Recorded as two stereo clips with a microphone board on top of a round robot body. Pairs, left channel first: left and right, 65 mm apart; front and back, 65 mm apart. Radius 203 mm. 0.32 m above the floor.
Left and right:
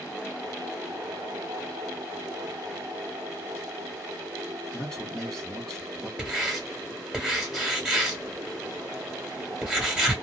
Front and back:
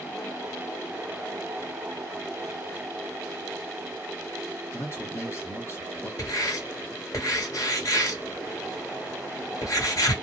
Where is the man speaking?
10° left, 1.8 m.